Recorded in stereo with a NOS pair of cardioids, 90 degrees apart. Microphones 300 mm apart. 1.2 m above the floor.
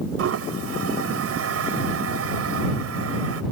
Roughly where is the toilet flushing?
Ahead right.